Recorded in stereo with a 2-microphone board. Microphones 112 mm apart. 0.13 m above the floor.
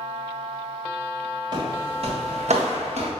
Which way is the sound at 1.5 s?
40° right (ahead or behind).